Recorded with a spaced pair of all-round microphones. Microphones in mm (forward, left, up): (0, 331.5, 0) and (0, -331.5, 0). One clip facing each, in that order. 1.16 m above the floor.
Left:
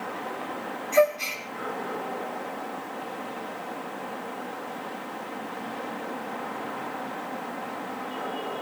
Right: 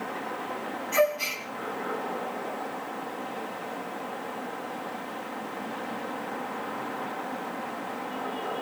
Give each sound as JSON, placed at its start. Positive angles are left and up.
{"t": 0.9, "sound": "a gasp", "side_deg": -45, "distance_m": 3.0}